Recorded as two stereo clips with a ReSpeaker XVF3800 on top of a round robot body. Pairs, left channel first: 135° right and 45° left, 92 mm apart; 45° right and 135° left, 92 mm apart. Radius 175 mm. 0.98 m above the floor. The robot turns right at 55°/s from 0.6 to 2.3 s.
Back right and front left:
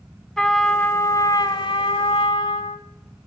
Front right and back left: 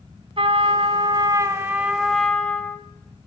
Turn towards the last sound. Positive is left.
turn(degrees=-125)